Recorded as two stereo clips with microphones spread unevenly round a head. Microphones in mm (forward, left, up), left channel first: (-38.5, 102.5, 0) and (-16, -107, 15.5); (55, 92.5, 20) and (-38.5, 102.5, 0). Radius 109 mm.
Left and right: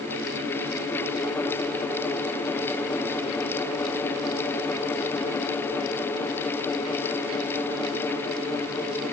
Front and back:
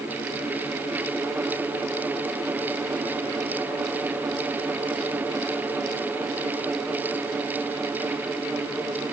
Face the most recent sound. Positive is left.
No sound to turn to.